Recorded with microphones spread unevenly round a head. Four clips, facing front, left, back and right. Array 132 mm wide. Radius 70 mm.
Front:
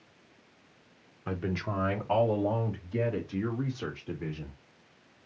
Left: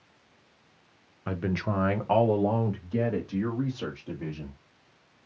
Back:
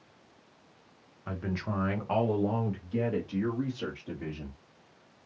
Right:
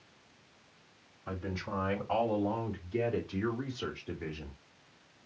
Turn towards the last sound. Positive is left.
turn(degrees=120)